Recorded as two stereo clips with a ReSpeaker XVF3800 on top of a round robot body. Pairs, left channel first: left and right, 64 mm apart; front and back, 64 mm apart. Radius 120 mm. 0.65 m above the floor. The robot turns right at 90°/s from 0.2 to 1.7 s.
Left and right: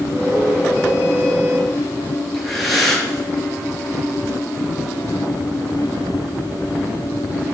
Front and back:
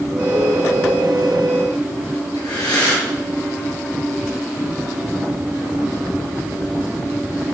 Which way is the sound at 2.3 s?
5° left.